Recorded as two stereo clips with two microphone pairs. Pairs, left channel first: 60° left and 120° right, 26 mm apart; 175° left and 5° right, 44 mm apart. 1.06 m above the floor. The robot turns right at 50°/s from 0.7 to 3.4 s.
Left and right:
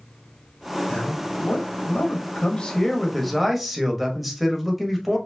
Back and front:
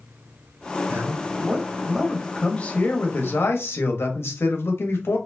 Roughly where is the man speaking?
Ahead left.